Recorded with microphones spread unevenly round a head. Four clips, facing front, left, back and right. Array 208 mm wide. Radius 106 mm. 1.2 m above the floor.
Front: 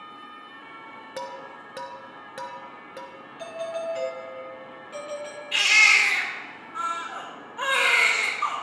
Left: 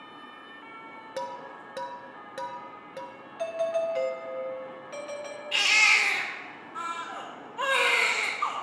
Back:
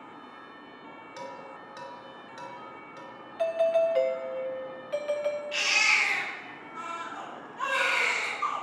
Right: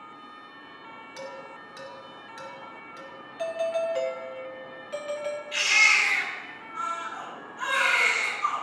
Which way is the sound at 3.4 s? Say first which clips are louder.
Even, back 8 dB; 170° right.